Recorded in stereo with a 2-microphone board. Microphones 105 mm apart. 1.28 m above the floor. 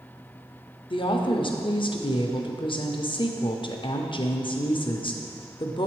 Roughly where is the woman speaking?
Left.